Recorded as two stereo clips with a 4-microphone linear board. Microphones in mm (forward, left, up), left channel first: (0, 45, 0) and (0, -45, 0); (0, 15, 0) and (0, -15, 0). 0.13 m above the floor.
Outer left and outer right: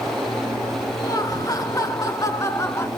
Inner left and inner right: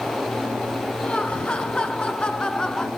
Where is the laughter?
40° left (ahead or behind), 2.5 m; by 2.9 s 30° left (ahead or behind), 1.7 m.